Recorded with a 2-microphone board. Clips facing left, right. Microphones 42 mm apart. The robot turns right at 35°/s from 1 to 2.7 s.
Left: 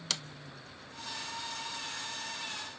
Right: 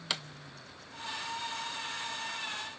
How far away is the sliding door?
About 0.6 m.